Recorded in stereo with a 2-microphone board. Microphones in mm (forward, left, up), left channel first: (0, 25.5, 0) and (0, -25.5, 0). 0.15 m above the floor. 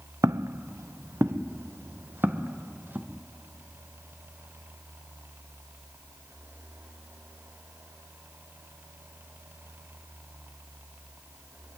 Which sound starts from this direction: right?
Footsteps, at 0.2 s.